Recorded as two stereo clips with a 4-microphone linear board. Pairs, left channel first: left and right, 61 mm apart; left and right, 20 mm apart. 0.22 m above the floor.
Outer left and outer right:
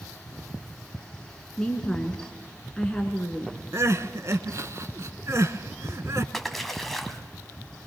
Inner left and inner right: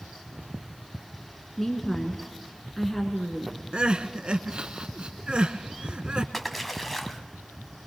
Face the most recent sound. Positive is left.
turn(degrees=5)  # may be behind; listen again after turning